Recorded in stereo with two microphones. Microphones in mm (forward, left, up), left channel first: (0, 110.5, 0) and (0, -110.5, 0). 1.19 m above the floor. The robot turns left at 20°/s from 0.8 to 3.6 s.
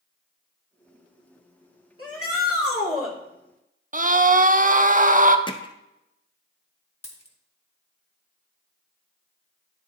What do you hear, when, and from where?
2.0 s a shout: 80° left, 2.5 m; by 3.1 s 75° left (ahead or behind), 2.5 m
3.9 s a scream: 40° right (ahead or behind), 0.5 m
5.5 s hammering: 20° left (ahead or behind), 0.5 m
7.0 s a dropped coin: 30° left (ahead or behind), 1.1 m